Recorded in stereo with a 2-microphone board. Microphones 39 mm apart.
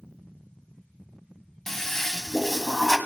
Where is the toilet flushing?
10° left (ahead or behind), 1.1 m.